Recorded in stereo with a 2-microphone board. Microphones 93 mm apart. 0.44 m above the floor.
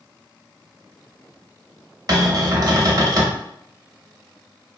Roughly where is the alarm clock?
I don't hear an alarm clock.